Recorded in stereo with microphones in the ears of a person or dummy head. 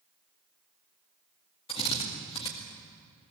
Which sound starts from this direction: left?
A drill, at 1.7 s.